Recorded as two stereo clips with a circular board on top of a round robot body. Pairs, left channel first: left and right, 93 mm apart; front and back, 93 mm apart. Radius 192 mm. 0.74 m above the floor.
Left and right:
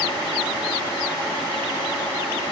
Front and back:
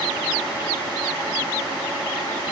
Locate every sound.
Only background noise.